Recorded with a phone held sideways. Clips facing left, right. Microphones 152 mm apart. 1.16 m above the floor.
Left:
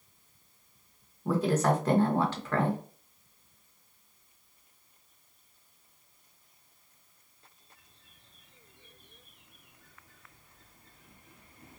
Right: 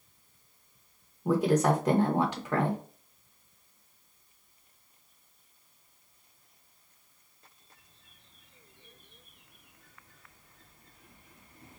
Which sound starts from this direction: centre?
A woman speaking, at 1.2 s.